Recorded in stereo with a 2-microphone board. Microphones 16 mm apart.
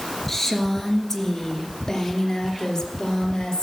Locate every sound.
0.3 s a woman speaking: 20° left (ahead or behind), 2.5 m; by 3.6 s 60° left (ahead or behind), 3 m